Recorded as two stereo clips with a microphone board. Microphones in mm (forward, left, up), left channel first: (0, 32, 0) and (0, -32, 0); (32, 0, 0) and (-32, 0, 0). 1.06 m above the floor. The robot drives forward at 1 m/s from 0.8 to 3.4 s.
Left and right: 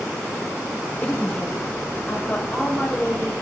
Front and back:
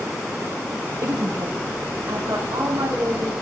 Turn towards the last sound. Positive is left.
turn(degrees=170)